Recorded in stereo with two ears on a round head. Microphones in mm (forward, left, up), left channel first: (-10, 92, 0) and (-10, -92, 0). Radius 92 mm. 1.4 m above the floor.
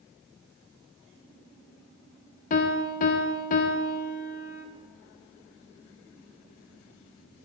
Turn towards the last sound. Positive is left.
turn(degrees=40)  # may be behind; listen again after turning